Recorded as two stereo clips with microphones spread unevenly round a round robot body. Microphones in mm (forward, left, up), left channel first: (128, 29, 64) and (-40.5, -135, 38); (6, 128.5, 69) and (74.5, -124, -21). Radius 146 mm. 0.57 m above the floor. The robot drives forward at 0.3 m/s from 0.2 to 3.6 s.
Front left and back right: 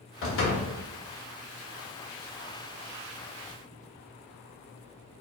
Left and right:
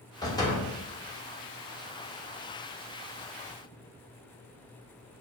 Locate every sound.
0.2 s a door slam: 20° left, 1.2 m